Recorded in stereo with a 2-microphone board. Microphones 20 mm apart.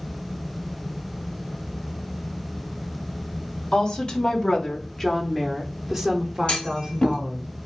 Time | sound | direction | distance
3.7 | a woman speaking | 50° left (ahead or behind) | 1.4 m
6.5 | a clunk | 55° left (ahead or behind) | 1.4 m